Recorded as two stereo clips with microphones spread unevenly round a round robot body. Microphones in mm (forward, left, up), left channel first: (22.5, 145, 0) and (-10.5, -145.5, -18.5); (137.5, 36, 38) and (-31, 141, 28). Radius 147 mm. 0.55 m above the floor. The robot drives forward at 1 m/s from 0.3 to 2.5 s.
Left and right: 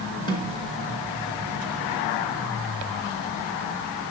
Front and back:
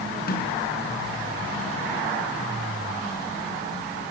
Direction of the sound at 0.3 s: 10° left.